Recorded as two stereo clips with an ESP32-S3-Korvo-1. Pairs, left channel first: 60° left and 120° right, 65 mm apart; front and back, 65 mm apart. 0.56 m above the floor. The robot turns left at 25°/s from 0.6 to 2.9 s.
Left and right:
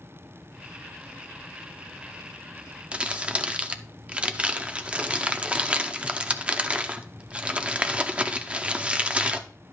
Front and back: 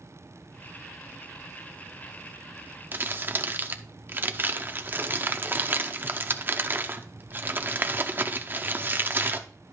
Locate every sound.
2.9 s crumpling: 175° right, 0.8 m